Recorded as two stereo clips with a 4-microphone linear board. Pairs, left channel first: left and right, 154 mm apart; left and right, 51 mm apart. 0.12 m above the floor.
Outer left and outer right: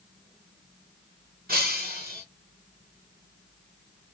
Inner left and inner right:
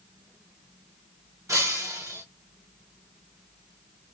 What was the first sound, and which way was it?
Breaking glass, 75° right (ahead or behind).